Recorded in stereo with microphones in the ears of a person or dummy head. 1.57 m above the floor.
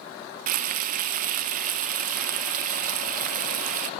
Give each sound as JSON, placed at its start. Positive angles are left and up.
{"t": 0.5, "sound": "frying", "side_deg": -50, "distance_m": 1.0}